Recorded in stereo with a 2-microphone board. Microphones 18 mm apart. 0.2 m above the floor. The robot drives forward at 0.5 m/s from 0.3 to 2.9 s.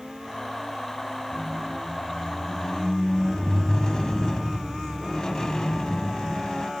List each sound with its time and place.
1.3 s a squeak: 15° left (ahead or behind), 0.9 m; by 6.7 s 30° left (ahead or behind), 0.5 m